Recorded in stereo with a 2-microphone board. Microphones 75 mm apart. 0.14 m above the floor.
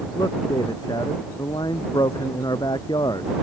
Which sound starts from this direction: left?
A man speaking, at 0.1 s.